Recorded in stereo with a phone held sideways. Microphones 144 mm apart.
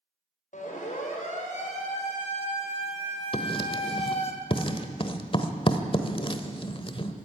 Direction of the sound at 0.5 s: 60° left (ahead or behind).